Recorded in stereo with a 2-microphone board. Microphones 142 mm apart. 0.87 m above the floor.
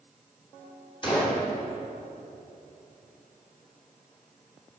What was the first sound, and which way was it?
A gunshot, 35° left (ahead or behind).